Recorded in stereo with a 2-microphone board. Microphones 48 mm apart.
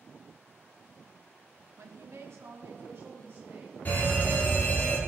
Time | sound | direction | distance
1.8 | a woman speaking | 90° right | 1.2 m
3.9 | a fire alarm | 40° left (ahead or behind) | 2.5 m